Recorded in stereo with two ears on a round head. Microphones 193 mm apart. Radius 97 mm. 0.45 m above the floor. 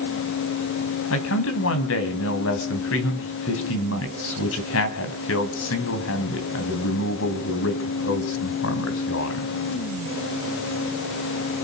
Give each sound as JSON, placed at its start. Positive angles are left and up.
{"t": 1.1, "sound": "a man speaking", "side_deg": 65, "distance_m": 3.5}